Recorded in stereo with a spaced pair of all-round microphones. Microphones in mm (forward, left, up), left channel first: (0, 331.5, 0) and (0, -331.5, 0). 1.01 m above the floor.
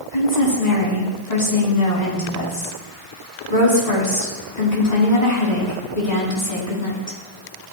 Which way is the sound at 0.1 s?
75° left (ahead or behind).